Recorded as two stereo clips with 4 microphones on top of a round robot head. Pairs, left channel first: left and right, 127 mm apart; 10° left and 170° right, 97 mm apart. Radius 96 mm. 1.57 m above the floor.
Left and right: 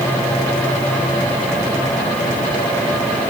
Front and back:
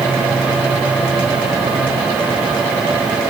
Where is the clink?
No clink in this recording.